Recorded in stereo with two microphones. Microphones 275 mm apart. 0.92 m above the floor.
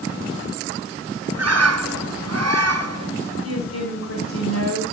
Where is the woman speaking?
70° left (ahead or behind), 5.5 m.